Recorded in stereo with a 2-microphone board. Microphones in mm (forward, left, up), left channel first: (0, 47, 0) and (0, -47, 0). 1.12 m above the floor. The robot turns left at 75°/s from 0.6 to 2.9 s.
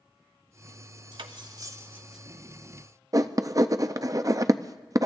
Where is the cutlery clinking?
60° right (ahead or behind), 0.8 m; by 2.2 s centre (ahead or behind), 0.8 m.